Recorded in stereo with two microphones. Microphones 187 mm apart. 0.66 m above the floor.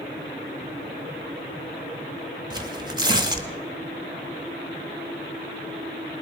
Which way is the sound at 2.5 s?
20° right (ahead or behind).